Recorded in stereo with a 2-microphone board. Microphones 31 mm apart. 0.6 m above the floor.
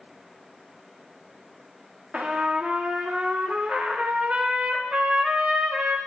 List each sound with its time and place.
2.1 s a trumpet: 35° right (ahead or behind), 0.6 m